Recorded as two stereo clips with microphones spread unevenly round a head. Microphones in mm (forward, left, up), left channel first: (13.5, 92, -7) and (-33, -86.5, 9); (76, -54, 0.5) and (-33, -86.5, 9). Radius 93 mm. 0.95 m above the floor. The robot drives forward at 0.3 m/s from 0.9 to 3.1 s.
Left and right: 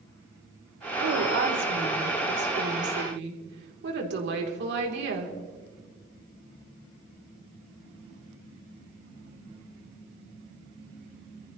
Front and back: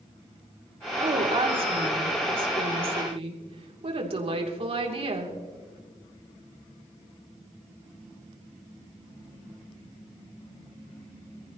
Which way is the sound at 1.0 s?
120° right.